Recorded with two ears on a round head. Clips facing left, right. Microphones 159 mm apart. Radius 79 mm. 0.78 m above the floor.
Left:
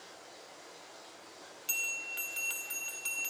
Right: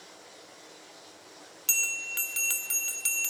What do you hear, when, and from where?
0.0 s running water: 30° right (ahead or behind), 9 m
1.7 s a bell: 60° right (ahead or behind), 1.1 m